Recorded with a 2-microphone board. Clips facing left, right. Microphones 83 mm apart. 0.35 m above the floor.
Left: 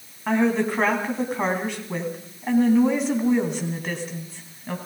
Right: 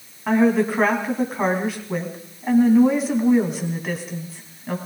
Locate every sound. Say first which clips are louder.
0.3 s a woman speaking: right 3 dB; 5° right (ahead or behind), 3 m